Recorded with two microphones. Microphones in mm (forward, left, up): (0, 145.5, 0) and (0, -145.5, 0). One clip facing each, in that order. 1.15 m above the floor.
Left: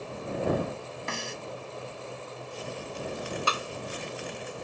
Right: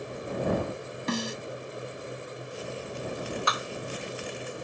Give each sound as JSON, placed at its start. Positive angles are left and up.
{"t": 1.1, "sound": "a snare drum", "side_deg": -45}
{"t": 3.5, "sound": "a clap", "side_deg": 35}